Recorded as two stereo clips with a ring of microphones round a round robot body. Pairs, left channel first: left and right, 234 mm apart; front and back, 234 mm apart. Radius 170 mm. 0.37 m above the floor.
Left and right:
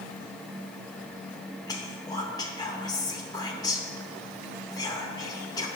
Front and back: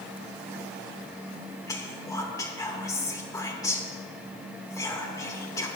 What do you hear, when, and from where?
1.7 s whispering: 50° left, 1.1 m